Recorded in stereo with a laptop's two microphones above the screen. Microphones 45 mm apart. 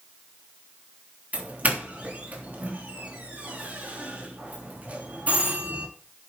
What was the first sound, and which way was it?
A doorbell, 40° right (ahead or behind).